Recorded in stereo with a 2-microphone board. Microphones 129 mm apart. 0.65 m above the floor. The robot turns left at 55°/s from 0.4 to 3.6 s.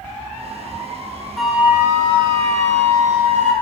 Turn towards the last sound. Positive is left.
turn(degrees=-120)